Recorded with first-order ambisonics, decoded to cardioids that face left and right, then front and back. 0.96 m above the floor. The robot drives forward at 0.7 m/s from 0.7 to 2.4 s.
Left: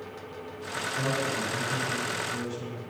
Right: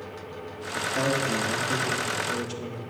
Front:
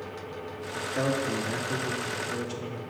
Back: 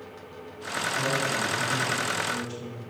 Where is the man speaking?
50° right, 2.0 m; by 2.8 s 85° right, 1.5 m.